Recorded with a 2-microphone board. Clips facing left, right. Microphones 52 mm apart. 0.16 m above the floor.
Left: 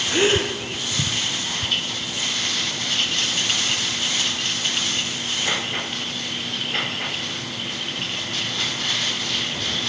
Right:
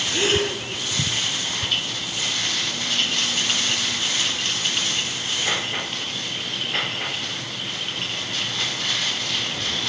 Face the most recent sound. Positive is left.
turn(degrees=30)  # may be behind; listen again after turning